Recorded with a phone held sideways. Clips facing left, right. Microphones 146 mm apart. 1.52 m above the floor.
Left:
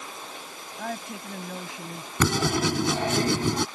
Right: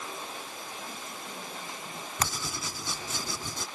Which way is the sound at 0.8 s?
85° left.